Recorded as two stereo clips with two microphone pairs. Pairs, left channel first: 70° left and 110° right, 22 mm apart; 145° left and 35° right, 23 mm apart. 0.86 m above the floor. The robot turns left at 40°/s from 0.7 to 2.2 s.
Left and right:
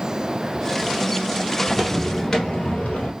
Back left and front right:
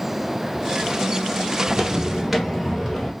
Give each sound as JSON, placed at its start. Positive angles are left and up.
{"t": 1.7, "sound": "footsteps", "azimuth_deg": -40, "distance_m": 0.8}